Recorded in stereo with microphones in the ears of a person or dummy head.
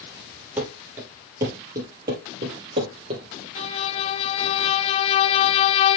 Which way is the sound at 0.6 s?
10° right (ahead or behind).